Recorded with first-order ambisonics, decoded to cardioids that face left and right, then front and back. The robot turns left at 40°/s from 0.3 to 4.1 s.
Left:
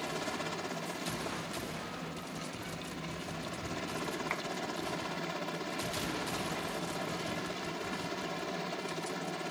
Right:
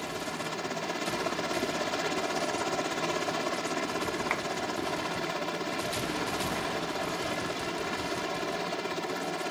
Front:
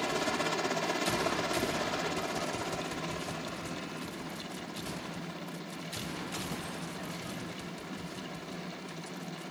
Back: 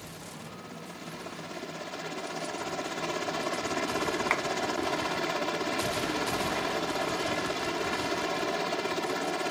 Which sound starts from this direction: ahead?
A helicopter, at 0.0 s.